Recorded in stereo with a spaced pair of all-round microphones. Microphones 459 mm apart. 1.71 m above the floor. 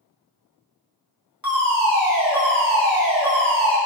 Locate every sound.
1.4 s a fire alarm: 45° right (ahead or behind), 3 m